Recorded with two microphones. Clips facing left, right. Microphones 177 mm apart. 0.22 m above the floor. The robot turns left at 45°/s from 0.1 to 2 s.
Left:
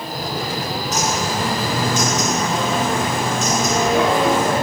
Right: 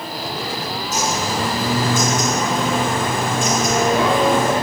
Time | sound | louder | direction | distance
0.9 | a bird | right 1 dB | 30° right | 2.5 m